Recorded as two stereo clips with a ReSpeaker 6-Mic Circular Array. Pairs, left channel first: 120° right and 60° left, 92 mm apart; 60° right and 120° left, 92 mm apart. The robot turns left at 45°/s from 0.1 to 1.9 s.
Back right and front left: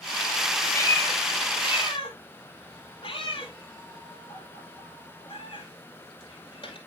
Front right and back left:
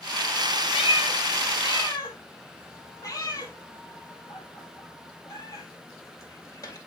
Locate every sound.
0.7 s a cat meowing: 55° right, 1.7 m; by 6.8 s 105° right, 1.7 m